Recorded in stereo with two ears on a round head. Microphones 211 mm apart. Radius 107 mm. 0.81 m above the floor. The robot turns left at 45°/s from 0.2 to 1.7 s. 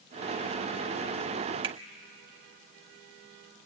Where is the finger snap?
20° right (ahead or behind), 1.3 m.